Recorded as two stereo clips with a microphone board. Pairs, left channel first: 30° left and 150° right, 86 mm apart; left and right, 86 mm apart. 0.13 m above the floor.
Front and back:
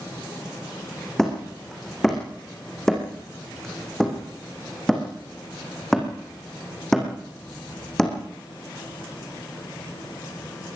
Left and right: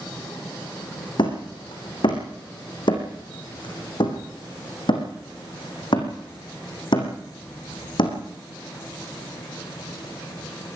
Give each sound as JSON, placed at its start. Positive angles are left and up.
{"t": 1.2, "sound": "hammering", "azimuth_deg": 115, "distance_m": 5.0}